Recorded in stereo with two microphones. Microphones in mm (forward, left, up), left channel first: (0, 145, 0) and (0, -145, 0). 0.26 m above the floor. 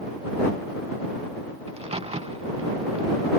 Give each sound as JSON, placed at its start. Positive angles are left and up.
{"t": 1.7, "sound": "a crack", "side_deg": -20}